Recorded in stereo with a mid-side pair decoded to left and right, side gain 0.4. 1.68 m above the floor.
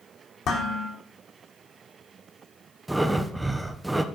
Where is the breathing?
15° right, 1.0 m.